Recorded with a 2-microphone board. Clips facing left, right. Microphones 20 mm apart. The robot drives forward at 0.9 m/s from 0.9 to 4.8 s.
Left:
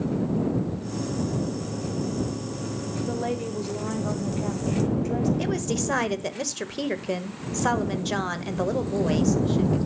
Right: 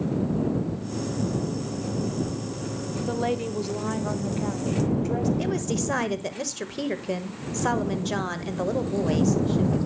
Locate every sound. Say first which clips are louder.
3.1 s a woman speaking: right 3 dB; 25° right (ahead or behind), 1.0 m; by 5.3 s 15° right (ahead or behind), 1.8 m
5.4 s a woman speaking: even; 10° left (ahead or behind), 1.2 m